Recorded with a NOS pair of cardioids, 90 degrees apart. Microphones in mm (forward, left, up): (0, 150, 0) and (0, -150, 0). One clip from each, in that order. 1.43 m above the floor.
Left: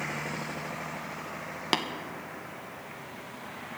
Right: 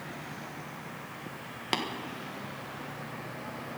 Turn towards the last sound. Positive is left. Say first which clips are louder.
# left 3 dB
turn(degrees=20)